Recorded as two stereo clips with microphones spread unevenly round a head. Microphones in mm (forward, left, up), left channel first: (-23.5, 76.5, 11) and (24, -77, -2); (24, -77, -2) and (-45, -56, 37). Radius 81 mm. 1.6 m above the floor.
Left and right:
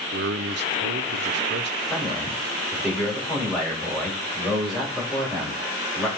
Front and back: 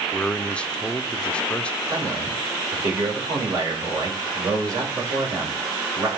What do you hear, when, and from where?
0.1 s a man speaking: 100° right, 0.7 m
1.9 s a man speaking: 160° right, 3 m